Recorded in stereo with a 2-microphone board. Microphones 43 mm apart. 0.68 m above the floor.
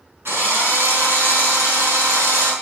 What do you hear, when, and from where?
0.2 s a drill: 70° right (ahead or behind), 5.5 m